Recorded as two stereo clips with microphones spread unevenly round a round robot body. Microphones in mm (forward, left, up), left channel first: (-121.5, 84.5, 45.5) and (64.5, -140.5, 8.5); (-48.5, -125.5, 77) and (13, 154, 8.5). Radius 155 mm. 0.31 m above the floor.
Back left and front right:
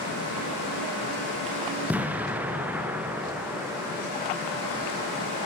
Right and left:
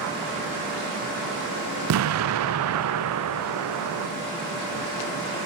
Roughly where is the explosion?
Ahead left.